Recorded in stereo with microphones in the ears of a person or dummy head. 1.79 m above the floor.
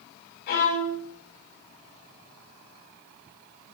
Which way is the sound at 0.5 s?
50° left (ahead or behind).